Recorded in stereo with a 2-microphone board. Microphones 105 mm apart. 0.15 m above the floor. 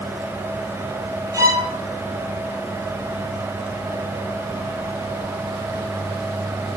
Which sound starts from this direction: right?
A violin, at 1.3 s.